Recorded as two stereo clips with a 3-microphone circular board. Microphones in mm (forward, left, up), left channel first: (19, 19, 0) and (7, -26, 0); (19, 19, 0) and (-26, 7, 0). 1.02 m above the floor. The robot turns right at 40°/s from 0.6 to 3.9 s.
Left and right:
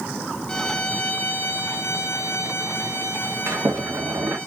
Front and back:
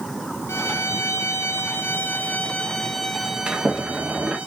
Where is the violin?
5° left, 0.7 m; by 4.5 s 135° left, 0.7 m.